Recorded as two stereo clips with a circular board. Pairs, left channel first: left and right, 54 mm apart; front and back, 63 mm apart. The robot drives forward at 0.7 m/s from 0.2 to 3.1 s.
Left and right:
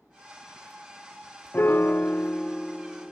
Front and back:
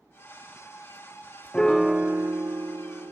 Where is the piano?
60° left; by 3.1 s 160° left.